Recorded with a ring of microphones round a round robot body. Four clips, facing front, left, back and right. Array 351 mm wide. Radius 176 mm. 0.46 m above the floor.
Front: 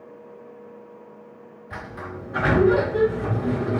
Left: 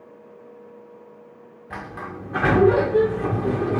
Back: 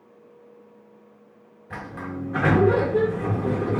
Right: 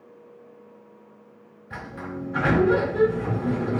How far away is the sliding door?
About 1.6 m.